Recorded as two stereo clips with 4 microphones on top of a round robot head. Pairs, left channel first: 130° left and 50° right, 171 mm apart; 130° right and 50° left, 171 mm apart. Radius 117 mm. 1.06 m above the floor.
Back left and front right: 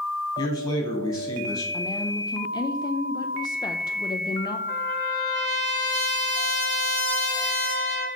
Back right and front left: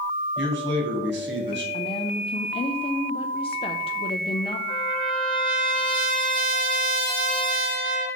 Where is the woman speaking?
175° right, 0.6 m.